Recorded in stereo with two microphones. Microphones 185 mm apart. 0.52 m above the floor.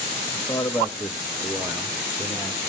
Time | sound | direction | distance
0.3 | a man speaking | 20° left (ahead or behind) | 1.1 m